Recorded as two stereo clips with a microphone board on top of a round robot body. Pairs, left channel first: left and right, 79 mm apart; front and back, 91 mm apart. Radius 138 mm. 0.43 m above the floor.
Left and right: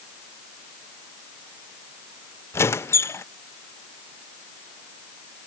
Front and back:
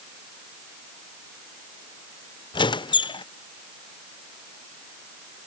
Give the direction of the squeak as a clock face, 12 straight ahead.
11 o'clock.